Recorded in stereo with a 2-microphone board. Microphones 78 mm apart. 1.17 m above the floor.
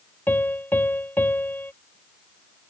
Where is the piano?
25° left (ahead or behind).